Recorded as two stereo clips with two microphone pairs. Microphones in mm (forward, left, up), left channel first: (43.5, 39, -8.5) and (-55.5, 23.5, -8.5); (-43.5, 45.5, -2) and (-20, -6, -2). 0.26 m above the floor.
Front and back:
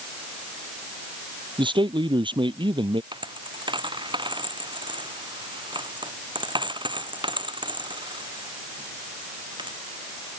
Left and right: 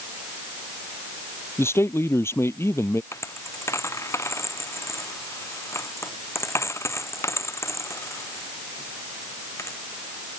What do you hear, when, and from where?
1.6 s a man speaking: 155° left
3.1 s a dropped coin: 150° left